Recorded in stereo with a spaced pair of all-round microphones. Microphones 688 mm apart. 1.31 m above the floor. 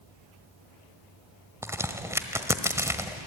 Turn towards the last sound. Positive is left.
turn(degrees=-5)  # may be behind; listen again after turning